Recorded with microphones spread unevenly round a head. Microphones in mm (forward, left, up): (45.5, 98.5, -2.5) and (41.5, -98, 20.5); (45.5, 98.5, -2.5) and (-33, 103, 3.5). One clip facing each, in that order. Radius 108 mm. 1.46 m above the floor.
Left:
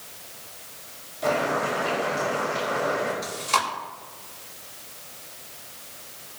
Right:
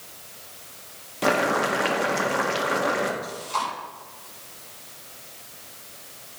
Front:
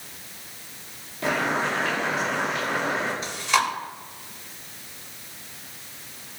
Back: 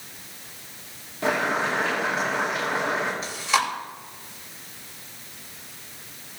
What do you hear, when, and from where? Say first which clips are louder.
1.2 s boiling: right 2 dB, back 1 dB; 105° right, 1.7 m
3.2 s chewing: left 2 dB, front 3 dB; 90° left, 4 m